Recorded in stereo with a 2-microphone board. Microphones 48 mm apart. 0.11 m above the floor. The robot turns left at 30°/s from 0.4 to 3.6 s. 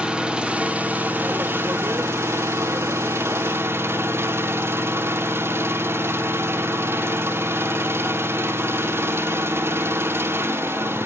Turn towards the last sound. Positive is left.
turn(degrees=-115)